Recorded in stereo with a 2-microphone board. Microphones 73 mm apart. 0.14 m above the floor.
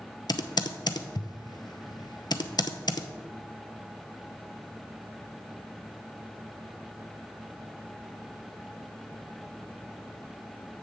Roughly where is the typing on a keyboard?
Left.